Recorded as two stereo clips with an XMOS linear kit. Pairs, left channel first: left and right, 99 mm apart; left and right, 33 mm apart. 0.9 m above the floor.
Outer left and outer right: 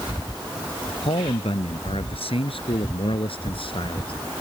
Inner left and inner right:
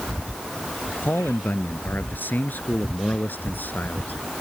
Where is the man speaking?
75° left (ahead or behind); by 4.1 s 65° left (ahead or behind).